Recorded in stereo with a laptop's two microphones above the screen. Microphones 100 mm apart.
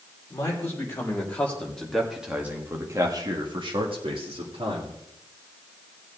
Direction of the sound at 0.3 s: 25° left (ahead or behind).